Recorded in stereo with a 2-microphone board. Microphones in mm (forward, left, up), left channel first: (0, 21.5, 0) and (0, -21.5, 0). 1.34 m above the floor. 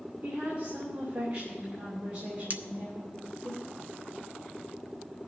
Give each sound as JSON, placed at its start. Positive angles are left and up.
{"t": 0.2, "sound": "a woman speaking", "side_deg": -70, "distance_m": 2.5}
{"t": 2.5, "sound": "cutlery clinking", "side_deg": -40, "distance_m": 0.6}